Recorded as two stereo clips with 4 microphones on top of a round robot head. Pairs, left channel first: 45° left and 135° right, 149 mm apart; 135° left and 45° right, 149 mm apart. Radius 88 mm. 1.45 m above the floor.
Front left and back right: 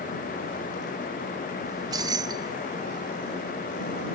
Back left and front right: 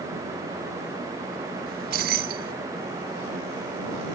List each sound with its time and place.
1.7 s keys jangling: 70° right